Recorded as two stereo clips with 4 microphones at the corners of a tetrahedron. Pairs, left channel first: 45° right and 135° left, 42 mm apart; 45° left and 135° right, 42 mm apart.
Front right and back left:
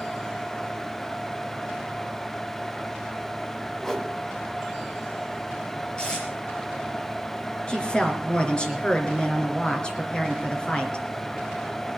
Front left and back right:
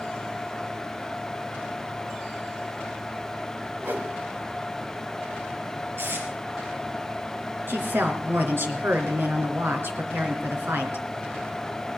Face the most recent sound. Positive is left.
turn(degrees=-110)